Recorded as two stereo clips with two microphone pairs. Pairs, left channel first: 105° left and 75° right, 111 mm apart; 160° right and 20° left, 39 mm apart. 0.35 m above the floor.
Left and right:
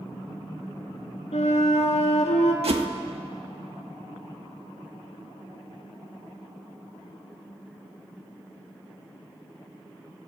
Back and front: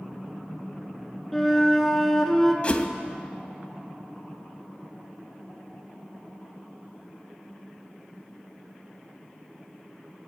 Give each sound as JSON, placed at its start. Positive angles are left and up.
{"t": 1.3, "sound": "a flute", "azimuth_deg": 115, "distance_m": 1.1}
{"t": 2.6, "sound": "a whoosh", "azimuth_deg": -100, "distance_m": 0.5}